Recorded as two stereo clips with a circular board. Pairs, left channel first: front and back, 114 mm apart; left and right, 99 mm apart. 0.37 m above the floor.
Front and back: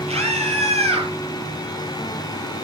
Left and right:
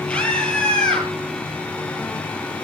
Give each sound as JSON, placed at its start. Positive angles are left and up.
{"t": 0.1, "sound": "a scream", "azimuth_deg": 170, "distance_m": 8.0}